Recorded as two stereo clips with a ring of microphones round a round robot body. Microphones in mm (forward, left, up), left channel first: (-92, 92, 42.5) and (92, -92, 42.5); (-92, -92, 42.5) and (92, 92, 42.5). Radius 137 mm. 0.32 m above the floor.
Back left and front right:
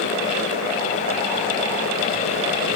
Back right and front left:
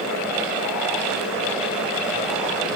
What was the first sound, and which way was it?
Only background noise.